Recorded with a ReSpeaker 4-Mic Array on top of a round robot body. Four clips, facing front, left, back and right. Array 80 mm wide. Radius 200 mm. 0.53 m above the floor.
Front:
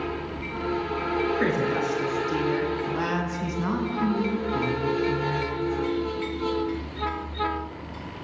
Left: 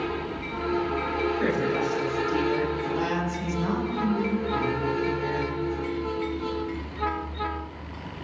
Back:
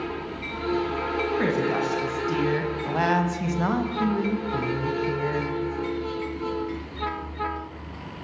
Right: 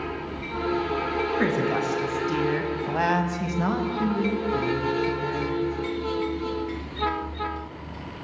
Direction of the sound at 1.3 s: 125° right.